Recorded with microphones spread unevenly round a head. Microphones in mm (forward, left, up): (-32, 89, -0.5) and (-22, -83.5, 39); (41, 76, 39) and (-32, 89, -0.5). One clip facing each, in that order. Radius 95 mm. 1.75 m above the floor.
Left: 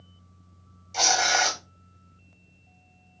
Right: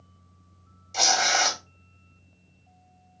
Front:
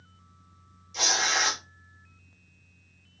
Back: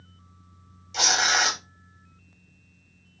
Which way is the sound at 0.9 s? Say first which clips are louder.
Even, back 4 dB; 145° right.